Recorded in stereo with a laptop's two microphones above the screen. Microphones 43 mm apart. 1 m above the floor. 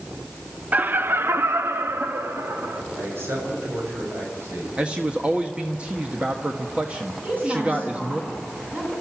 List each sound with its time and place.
0.7 s laughter: 40° right (ahead or behind), 0.6 m; by 2.8 s 80° right, 1.9 m
3.0 s a man speaking: 80° right, 6.5 m
4.8 s a man speaking: 30° right (ahead or behind), 1.3 m
7.2 s a woman speaking: 40° right (ahead or behind), 9 m